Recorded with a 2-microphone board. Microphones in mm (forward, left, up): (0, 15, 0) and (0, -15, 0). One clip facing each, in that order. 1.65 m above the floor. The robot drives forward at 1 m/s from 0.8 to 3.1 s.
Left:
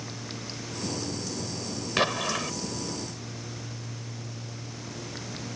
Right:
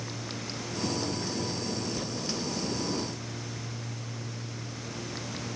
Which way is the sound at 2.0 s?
90° left.